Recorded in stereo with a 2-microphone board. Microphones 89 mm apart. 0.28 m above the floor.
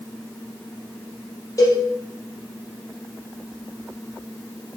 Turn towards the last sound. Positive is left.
turn(degrees=40)  # may be behind; listen again after turning